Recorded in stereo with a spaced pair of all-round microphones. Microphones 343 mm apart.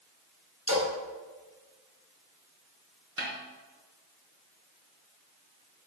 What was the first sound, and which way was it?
A splash, 60° left (ahead or behind).